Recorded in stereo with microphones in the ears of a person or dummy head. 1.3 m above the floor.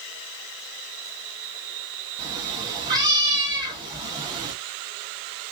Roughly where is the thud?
I don't hear a thud.